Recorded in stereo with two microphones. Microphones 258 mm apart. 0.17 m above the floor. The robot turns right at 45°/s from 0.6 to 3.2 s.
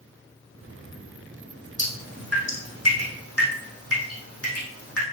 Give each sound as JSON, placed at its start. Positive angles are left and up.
{"t": 1.8, "sound": "dripping", "side_deg": 50, "distance_m": 3.0}